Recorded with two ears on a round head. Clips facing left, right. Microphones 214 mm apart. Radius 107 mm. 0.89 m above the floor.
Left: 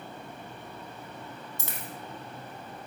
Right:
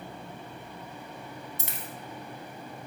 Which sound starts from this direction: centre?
A dropped coin, at 1.6 s.